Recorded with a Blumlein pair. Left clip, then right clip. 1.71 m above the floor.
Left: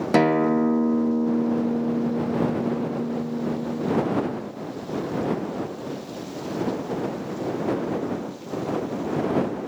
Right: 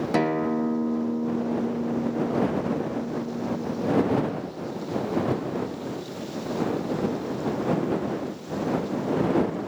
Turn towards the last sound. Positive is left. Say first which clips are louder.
# left 6 dB
turn(degrees=15)